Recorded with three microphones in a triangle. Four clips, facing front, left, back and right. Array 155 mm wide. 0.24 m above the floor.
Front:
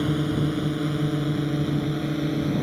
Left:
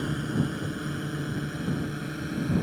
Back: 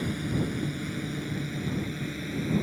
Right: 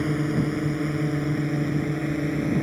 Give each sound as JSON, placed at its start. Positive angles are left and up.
{"t": 0.0, "sound": "a drone", "azimuth_deg": -45}